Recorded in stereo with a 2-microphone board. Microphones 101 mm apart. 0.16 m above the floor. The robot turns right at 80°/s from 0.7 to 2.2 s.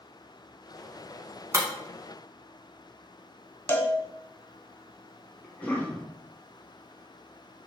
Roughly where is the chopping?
No chopping in this recording.